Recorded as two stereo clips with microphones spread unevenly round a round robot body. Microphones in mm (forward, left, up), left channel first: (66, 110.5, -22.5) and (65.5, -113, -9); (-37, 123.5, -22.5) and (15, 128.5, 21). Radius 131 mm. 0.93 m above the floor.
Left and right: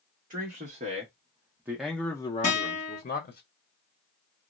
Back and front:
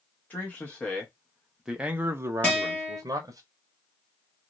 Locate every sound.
0.3 s a man speaking: 150° right, 1.0 m; by 3.4 s 50° left, 0.8 m
2.4 s a guitar: 130° left, 1.6 m